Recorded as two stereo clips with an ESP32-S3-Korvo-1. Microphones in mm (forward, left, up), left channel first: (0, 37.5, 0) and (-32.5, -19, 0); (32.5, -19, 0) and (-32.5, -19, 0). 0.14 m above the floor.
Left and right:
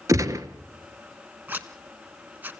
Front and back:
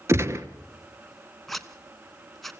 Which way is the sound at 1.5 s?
85° right.